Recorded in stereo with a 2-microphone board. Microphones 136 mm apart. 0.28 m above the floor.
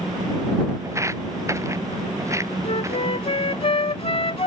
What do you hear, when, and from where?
0.8 s footsteps: 20° right (ahead or behind)
2.6 s a flute: 45° left (ahead or behind)